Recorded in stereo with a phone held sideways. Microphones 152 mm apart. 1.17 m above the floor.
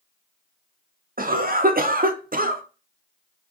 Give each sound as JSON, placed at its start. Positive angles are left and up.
{"t": 1.2, "sound": "a cough", "side_deg": -70, "distance_m": 0.5}